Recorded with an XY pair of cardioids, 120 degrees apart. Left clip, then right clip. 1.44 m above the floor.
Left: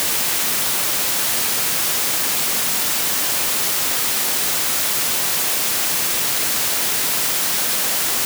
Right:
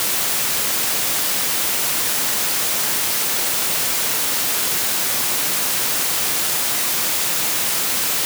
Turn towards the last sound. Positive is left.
No sound to turn to.